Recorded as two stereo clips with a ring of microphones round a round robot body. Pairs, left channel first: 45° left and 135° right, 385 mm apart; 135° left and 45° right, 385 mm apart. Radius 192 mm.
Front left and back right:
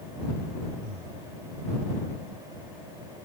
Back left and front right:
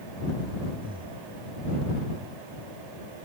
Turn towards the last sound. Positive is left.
turn(degrees=-125)